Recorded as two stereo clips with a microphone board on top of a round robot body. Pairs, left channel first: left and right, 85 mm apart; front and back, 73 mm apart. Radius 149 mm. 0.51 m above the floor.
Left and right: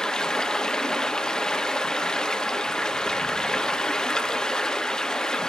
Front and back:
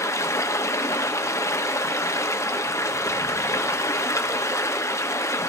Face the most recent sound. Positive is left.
turn(degrees=10)